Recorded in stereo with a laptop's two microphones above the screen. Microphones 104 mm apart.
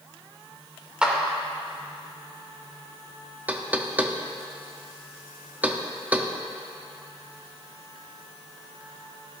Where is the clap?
10° right (ahead or behind), 3 m.